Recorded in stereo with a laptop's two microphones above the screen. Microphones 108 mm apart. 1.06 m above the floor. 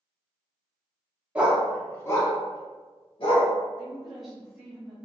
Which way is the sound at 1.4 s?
15° right (ahead or behind).